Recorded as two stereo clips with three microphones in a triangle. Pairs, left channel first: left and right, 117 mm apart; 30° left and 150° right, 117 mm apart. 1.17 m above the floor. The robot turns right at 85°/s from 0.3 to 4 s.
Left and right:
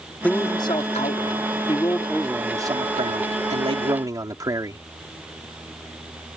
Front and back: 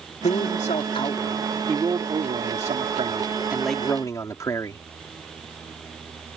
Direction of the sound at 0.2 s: 15° left.